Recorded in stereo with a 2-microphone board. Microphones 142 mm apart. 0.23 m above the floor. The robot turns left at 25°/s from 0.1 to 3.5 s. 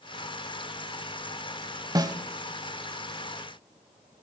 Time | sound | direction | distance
1.9 | a snare drum | 25° right (ahead or behind) | 0.8 m